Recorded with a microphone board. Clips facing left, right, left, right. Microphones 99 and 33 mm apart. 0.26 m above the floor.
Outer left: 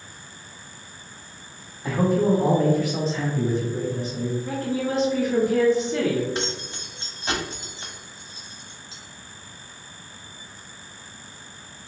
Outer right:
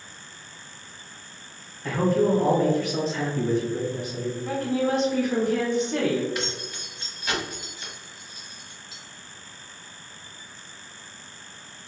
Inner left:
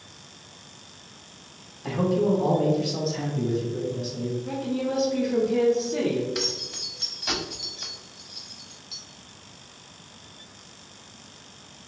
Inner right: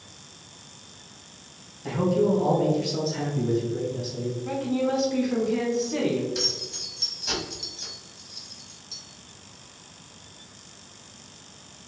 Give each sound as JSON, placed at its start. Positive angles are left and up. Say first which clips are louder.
{"t": 1.8, "sound": "a man speaking", "louder": "outer left 1 dB, even", "side_deg": 15, "distance_m": 1.3}
{"t": 4.5, "sound": "a woman speaking", "louder": "outer right 6 dB, inner right 5 dB", "side_deg": -55, "distance_m": 1.8}
{"t": 6.3, "sound": "keys jangling", "louder": "outer left 2 dB, inner left 1 dB", "side_deg": 30, "distance_m": 0.9}